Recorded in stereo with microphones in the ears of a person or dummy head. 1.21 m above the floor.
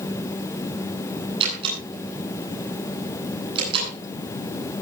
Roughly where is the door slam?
Right.